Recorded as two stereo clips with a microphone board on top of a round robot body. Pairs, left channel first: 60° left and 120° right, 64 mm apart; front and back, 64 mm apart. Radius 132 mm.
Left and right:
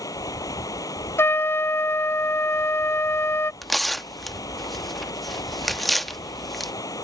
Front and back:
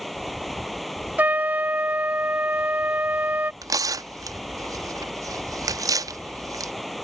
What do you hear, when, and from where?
0.0 s running water: 90° left
1.2 s a trumpet: 115° left
3.6 s tearing paper: 150° left